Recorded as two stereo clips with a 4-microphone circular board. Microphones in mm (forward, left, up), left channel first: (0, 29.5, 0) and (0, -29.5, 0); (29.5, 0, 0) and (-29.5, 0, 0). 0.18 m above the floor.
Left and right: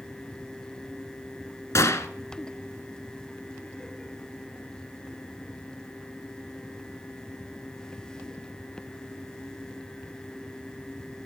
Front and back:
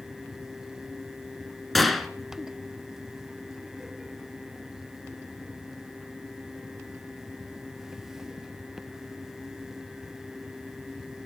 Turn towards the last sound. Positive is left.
turn(degrees=90)